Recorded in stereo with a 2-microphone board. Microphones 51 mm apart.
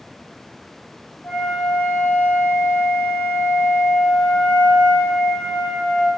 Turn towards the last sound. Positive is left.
turn(degrees=45)  # may be behind; listen again after turning